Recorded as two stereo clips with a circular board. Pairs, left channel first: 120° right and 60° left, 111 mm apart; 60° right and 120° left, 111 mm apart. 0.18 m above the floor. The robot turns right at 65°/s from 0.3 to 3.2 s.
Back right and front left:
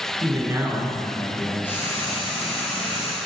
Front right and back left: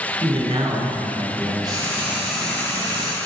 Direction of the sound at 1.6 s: 165° left.